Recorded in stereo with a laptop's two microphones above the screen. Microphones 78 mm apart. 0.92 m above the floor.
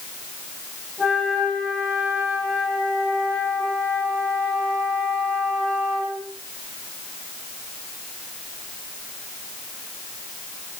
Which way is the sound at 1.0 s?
5° left (ahead or behind).